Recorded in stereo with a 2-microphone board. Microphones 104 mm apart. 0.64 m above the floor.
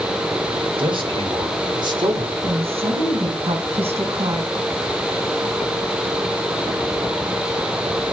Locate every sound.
0.8 s a man speaking: 60° right (ahead or behind), 3.5 m; by 2.3 s 45° right (ahead or behind), 2.0 m
2.4 s a woman speaking: 80° right, 4.5 m